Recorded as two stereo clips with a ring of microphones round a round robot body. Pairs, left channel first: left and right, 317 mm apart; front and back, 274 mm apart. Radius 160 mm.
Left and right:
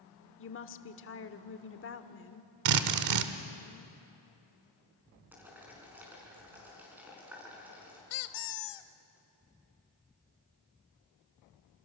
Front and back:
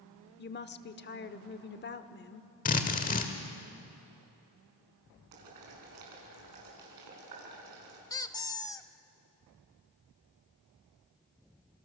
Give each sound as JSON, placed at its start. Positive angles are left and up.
{"t": 0.4, "sound": "a woman speaking", "azimuth_deg": 45, "distance_m": 1.1}
{"t": 2.6, "sound": "a drill", "azimuth_deg": -65, "distance_m": 1.1}
{"t": 5.3, "sound": "boiling", "azimuth_deg": -175, "distance_m": 5.0}
{"t": 8.1, "sound": "a squeak", "azimuth_deg": 80, "distance_m": 0.9}